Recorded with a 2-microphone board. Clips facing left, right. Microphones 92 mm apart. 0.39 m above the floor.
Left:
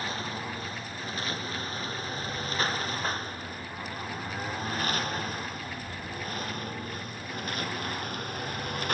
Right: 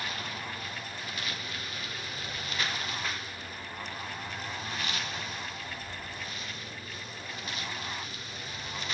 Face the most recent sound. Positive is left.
turn(degrees=55)  # may be behind; listen again after turning